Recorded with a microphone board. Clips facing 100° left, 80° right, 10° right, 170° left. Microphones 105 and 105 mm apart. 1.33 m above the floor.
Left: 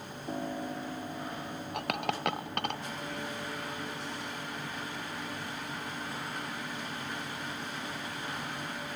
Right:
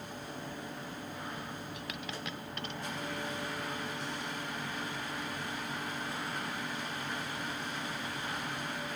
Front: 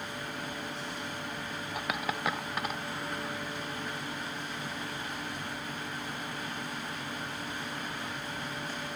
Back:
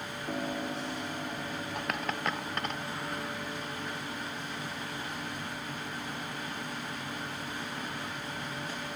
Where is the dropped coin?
75° left.